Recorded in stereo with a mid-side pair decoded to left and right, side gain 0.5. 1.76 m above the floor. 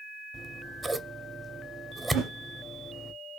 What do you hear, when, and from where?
0.3 s scissors: 25° right, 0.7 m
2.1 s a whoosh: 70° right, 1.6 m